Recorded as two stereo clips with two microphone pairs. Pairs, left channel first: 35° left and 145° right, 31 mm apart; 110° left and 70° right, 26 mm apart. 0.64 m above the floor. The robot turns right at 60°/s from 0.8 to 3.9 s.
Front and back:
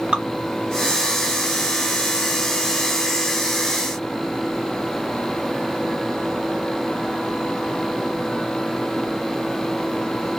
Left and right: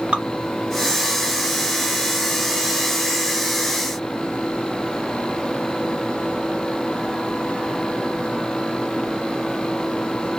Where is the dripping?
100° right, 1.0 m.